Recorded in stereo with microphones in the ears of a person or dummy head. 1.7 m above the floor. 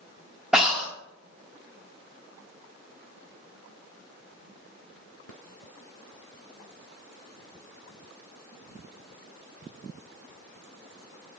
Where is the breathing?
5° right (ahead or behind), 3 m.